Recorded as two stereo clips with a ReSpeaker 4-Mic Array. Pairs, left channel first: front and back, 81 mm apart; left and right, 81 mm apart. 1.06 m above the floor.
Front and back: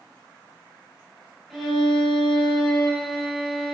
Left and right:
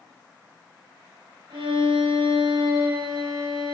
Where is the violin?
90° right, 5 m.